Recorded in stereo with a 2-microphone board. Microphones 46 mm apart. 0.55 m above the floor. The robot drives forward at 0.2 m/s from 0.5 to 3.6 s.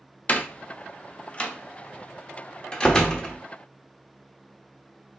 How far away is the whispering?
I don't hear whispering.